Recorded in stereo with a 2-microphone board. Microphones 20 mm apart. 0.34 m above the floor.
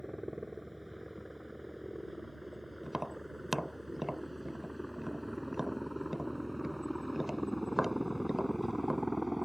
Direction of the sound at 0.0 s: 10° right (ahead or behind).